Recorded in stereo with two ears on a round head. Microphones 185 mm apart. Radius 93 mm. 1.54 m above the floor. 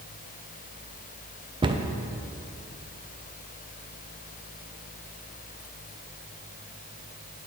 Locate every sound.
1.6 s a cupboard door: 20° right (ahead or behind), 0.5 m